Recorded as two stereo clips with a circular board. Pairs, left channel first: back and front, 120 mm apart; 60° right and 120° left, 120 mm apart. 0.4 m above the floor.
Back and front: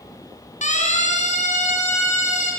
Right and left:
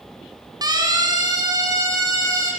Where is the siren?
175° left, 4.5 m; by 2.5 s straight behind, 7.5 m.